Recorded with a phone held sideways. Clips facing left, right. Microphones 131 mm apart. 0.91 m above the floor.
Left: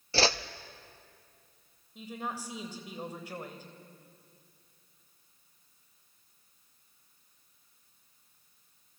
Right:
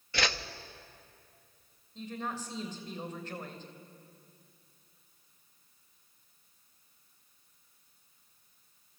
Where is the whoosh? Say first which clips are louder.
Left 5 dB; 30° left (ahead or behind), 0.7 m.